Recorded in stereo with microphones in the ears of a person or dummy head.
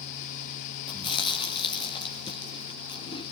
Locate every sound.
0.9 s chewing: 25° left (ahead or behind), 3.5 m